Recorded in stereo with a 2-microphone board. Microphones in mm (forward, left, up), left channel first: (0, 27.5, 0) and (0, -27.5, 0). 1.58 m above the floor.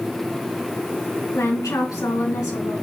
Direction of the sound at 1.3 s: 85° left.